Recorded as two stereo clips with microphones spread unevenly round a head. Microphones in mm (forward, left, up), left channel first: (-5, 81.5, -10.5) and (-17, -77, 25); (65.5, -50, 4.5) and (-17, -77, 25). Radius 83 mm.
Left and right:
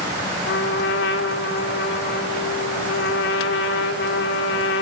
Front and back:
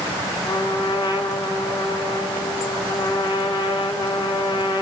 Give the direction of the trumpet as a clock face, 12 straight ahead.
9 o'clock.